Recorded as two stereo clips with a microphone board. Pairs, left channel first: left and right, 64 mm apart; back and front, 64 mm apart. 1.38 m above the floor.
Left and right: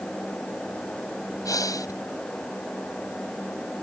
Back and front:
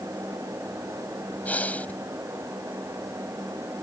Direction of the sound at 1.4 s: 115° left.